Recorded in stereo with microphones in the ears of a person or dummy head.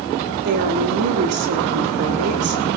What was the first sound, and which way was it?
A woman speaking, 55° right (ahead or behind).